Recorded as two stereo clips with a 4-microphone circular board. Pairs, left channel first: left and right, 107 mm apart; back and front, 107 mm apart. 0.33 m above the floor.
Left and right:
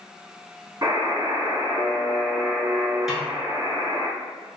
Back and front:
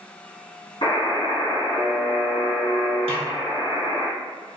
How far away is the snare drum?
About 0.9 m.